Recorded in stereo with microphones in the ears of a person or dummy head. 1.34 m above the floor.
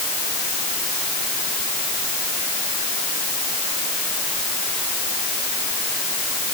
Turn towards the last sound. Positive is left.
No sound to turn to.